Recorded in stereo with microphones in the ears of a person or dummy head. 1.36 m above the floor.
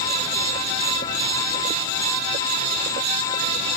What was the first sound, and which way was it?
Only background noise.